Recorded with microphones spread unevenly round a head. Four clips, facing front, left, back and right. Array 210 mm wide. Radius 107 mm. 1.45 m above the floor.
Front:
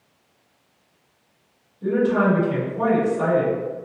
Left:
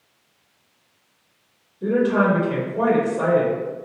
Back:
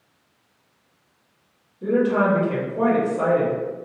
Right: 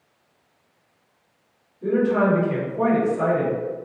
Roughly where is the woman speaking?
Behind left.